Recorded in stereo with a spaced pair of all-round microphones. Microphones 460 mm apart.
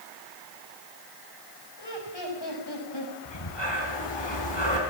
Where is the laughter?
60° left (ahead or behind), 6.5 m.